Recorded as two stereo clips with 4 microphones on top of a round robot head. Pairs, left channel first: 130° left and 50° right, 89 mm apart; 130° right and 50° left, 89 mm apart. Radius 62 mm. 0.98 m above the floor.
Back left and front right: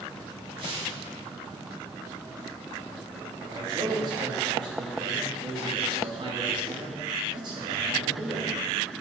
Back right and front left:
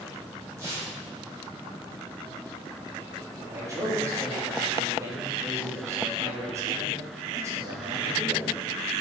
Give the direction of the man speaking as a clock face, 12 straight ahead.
12 o'clock.